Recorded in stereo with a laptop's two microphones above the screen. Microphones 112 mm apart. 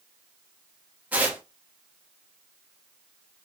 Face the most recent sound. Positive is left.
turn(degrees=-15)  # may be behind; listen again after turning